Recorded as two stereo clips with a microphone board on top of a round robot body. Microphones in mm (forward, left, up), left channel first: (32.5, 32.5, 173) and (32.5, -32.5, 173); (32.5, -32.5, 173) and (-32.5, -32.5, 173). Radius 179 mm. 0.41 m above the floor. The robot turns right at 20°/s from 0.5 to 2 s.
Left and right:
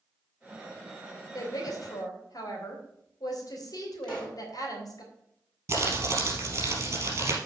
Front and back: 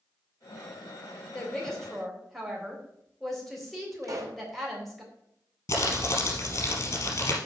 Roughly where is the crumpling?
Ahead right.